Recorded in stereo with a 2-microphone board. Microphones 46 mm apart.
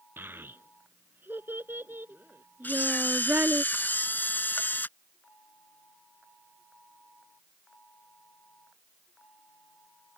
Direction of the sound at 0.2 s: 50° right (ahead or behind).